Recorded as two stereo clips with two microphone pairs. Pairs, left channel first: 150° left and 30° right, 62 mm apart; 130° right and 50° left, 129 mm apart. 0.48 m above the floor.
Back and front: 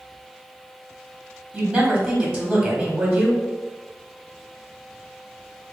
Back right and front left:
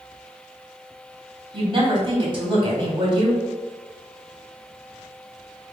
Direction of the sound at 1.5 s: 45° left.